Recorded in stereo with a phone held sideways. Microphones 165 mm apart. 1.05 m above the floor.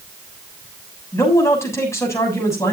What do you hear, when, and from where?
1.1 s a man speaking: 20° left (ahead or behind), 7 m